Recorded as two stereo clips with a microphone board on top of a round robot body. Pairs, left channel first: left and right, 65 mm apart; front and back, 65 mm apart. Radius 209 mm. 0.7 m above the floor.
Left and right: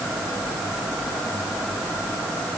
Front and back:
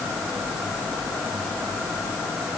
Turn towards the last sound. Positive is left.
No sound to turn to.